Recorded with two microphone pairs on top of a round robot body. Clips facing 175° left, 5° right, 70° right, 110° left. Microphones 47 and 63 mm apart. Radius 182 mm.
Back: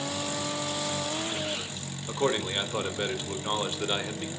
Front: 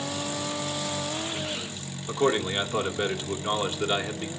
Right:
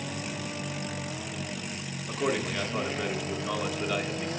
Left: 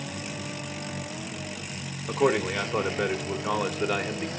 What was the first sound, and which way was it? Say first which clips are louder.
A man speaking: front 3 dB, left 6 dB; 75° left.